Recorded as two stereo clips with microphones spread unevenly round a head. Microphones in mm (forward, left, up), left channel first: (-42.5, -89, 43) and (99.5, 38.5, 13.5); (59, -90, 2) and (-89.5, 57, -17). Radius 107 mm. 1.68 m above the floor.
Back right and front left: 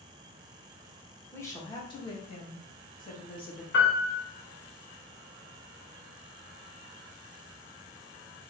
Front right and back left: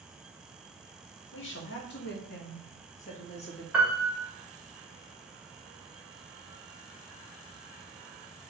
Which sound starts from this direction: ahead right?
A woman speaking, at 1.3 s.